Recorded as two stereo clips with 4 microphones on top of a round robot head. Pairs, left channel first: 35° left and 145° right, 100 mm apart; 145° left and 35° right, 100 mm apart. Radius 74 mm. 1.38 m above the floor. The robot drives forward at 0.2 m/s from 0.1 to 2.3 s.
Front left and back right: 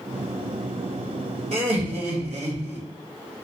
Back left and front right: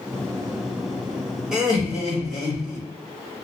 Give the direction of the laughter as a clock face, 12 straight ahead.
4 o'clock.